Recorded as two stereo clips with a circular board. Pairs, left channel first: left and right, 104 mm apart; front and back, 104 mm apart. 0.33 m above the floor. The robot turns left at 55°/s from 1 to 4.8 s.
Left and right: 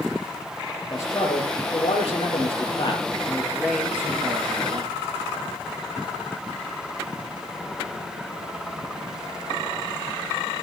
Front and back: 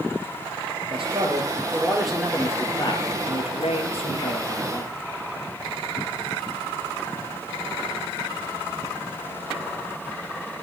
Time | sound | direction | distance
0.9 | a man speaking | 150° left | 6.5 m